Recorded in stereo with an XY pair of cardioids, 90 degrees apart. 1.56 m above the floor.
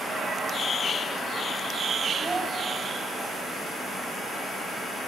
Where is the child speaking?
25° right, 1.9 m.